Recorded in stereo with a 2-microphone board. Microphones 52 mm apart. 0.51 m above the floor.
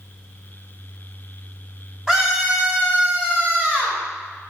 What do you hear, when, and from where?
2.1 s a scream: 5° right (ahead or behind), 1.1 m; by 4.0 s 40° right (ahead or behind), 1.5 m